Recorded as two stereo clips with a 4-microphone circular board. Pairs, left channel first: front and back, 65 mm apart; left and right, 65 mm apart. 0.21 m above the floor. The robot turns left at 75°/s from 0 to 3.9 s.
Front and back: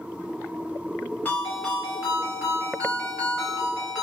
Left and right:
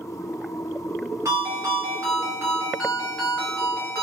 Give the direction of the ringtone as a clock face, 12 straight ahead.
2 o'clock.